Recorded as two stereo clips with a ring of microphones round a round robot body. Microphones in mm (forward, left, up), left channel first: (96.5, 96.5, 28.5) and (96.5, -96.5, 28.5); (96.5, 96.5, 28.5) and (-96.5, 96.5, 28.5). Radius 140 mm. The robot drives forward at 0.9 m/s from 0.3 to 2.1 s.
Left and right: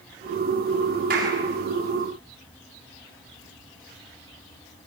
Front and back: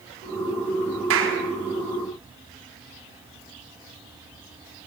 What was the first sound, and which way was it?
A clap, 150° right.